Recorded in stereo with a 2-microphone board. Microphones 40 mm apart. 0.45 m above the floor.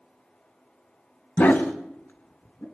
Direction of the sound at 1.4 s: 60° left (ahead or behind).